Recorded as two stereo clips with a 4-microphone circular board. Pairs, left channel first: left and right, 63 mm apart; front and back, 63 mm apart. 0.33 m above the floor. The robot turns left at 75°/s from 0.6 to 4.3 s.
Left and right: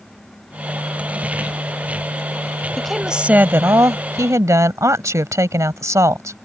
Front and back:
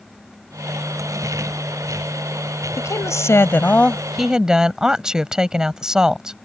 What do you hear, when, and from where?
2.8 s a woman speaking: 10° left; by 6.3 s 105° right